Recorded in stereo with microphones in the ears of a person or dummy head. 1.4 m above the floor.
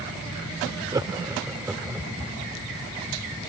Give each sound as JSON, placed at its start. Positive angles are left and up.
{"t": 0.9, "sound": "laughter", "side_deg": -25}